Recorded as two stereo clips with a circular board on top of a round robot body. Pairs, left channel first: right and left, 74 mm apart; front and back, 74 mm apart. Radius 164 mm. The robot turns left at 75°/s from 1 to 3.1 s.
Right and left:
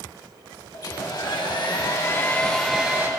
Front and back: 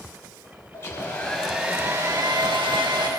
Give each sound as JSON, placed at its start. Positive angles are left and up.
{"t": 0.7, "sound": "a hair dryer", "azimuth_deg": -60, "distance_m": 3.0}